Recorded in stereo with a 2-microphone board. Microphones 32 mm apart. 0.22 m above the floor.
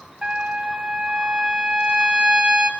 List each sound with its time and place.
0.2 s a trumpet: 35° right (ahead or behind), 1.3 m